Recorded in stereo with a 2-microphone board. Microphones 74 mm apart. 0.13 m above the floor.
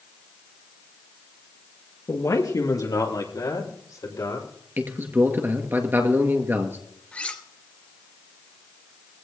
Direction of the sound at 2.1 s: 50° left (ahead or behind).